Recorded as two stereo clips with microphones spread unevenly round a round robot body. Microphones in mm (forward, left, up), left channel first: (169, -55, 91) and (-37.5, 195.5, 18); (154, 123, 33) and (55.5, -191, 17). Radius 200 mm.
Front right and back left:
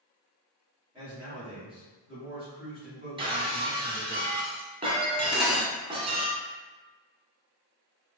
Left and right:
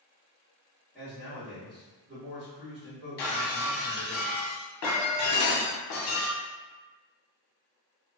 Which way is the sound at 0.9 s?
165° left.